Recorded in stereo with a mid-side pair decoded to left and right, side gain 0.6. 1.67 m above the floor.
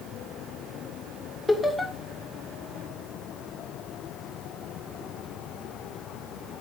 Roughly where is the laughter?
Ahead.